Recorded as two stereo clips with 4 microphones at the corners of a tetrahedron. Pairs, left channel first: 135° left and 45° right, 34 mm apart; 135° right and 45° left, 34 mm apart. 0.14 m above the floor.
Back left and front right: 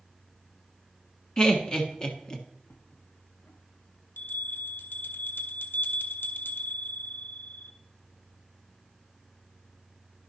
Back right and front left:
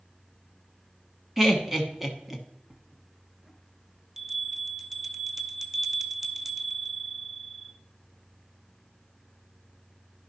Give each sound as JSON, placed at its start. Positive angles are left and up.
{"t": 1.4, "sound": "laughter", "azimuth_deg": 115, "distance_m": 1.1}
{"t": 2.7, "sound": "a bell", "azimuth_deg": 125, "distance_m": 0.6}